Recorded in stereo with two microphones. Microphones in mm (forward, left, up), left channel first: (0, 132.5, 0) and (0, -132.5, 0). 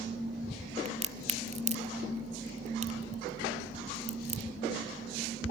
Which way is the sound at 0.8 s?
25° right (ahead or behind).